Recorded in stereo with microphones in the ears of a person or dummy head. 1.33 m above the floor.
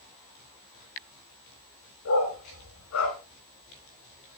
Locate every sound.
2.0 s a dog barking: 75° left (ahead or behind), 6 m